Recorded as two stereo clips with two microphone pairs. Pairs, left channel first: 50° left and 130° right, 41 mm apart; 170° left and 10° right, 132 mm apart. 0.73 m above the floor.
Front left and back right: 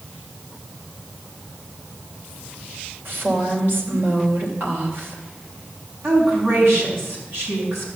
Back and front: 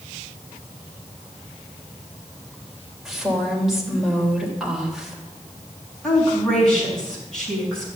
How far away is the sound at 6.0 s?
About 5.5 m.